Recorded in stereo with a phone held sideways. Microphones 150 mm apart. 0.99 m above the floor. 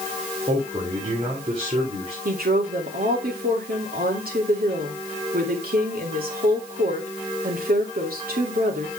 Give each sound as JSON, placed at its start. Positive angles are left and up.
{"t": 0.5, "sound": "a man speaking", "side_deg": -35, "distance_m": 3.0}
{"t": 2.2, "sound": "a woman speaking", "side_deg": -80, "distance_m": 2.5}